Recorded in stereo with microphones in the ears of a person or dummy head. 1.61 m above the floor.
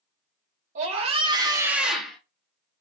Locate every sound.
0.8 s a scream: 50° right (ahead or behind), 0.9 m; by 2.2 s centre (ahead or behind), 0.8 m